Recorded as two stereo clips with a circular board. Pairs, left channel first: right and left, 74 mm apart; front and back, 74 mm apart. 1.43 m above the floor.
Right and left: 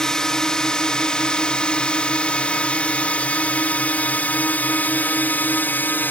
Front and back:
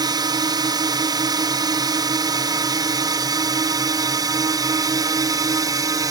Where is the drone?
175° right; by 6.1 s 155° right.